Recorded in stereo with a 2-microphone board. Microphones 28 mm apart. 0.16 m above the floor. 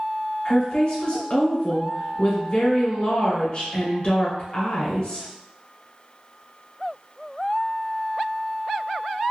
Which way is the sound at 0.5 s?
45° left (ahead or behind).